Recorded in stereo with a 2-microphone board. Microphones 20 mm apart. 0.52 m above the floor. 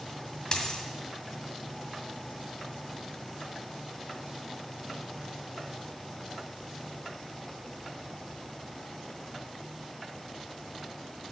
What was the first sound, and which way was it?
A dropped coin, 40° left (ahead or behind).